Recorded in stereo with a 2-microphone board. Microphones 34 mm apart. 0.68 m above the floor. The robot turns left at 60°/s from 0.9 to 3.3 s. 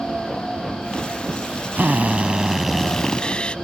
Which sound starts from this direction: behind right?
A drill, at 1.8 s.